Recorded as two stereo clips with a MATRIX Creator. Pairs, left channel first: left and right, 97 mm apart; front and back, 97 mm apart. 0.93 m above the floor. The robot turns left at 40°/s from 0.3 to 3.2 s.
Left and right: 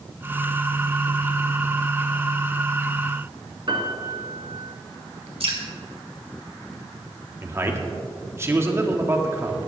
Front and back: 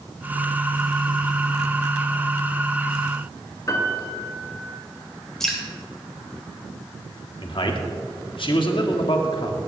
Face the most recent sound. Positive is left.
turn(degrees=-25)